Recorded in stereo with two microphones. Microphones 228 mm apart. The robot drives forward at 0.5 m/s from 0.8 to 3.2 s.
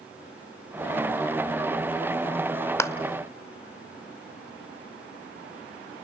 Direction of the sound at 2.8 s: 10° left (ahead or behind).